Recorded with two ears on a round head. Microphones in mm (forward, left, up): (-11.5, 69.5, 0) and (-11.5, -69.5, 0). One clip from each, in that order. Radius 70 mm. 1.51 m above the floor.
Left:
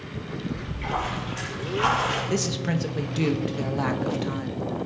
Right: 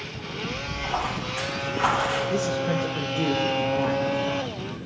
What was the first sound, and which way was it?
A splash, 10° left (ahead or behind).